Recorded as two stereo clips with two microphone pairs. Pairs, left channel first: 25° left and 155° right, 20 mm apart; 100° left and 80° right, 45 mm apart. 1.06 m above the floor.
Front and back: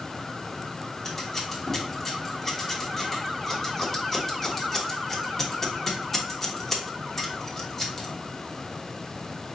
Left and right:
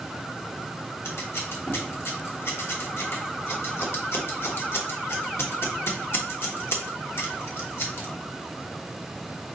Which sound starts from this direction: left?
Scissors, at 1.1 s.